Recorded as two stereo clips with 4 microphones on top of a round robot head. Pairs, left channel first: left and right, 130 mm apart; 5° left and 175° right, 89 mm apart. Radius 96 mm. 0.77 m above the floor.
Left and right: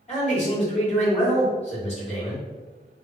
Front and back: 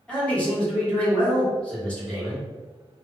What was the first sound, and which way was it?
A man speaking, 80° left.